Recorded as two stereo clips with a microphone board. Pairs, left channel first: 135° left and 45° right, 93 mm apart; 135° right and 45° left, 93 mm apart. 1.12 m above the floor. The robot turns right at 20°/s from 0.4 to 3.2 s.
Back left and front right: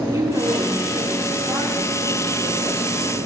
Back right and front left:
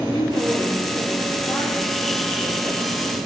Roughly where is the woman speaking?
Right.